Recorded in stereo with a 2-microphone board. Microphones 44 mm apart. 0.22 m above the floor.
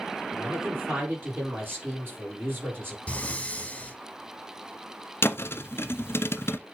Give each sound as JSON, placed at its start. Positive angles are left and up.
{"t": 0.3, "sound": "a man speaking", "side_deg": -50, "distance_m": 6.0}
{"t": 3.1, "sound": "breathing", "side_deg": 25, "distance_m": 1.1}
{"t": 5.2, "sound": "a thud", "side_deg": 65, "distance_m": 0.7}